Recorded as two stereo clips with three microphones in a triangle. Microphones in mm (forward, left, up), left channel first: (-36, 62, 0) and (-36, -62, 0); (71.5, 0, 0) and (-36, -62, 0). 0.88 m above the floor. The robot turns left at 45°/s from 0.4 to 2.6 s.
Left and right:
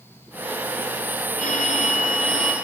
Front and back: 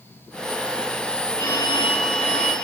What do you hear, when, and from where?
1.4 s a phone ringing: 95° left, 3 m; by 2.5 s 45° left, 3 m